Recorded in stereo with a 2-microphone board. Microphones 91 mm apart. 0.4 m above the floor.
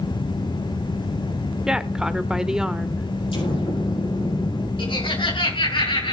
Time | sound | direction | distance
1.7 | a woman speaking | 10° right (ahead or behind) | 1.1 m
3.3 | an explosion | 75° left (ahead or behind) | 6.5 m
4.8 | laughter | 70° left (ahead or behind) | 6 m